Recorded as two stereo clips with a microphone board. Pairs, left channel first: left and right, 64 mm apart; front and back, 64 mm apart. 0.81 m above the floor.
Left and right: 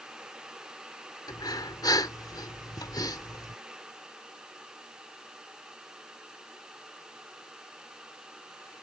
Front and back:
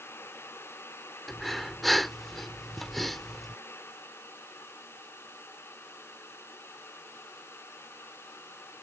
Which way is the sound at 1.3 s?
90° left.